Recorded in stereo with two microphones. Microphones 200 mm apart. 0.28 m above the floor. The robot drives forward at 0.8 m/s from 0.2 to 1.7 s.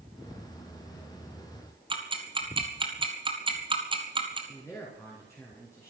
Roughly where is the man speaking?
Centre.